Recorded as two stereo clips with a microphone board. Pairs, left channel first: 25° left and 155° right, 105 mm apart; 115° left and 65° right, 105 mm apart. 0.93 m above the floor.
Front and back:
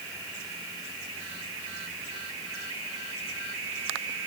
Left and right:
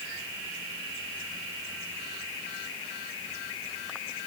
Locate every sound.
Only background noise.